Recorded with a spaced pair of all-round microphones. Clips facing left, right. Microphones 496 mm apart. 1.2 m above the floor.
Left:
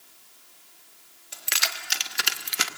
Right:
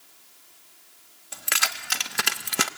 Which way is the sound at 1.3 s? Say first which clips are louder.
Right 3 dB; 70° right (ahead or behind).